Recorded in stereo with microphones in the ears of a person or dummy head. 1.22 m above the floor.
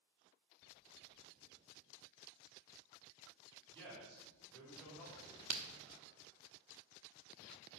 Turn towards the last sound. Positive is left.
turn(degrees=-10)  # may be behind; listen again after turning